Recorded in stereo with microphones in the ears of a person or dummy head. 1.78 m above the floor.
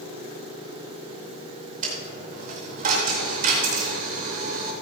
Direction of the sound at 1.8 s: 50° right (ahead or behind).